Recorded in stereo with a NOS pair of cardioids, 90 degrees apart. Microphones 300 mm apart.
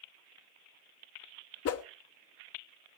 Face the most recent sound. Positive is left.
turn(degrees=50)